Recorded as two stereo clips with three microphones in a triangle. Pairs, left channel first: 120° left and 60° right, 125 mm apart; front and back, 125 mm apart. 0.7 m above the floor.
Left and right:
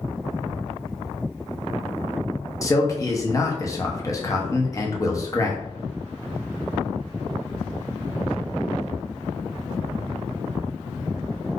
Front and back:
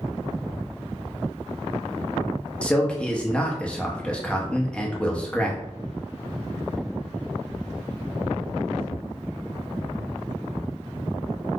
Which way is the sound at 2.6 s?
75° left.